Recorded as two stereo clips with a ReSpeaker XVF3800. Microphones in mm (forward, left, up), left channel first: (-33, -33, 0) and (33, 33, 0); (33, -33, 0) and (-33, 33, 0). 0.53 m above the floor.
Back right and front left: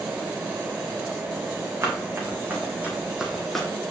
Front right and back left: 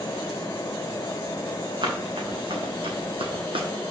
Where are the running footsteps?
105° left, 2.5 m; by 3.7 s 140° left, 1.4 m.